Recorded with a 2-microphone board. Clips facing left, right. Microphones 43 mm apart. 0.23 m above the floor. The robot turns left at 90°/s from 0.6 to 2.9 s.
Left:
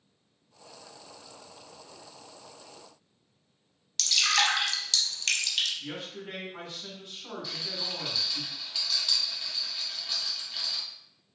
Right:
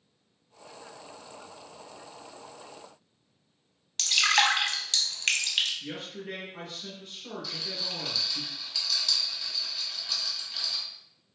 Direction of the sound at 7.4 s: 15° left (ahead or behind).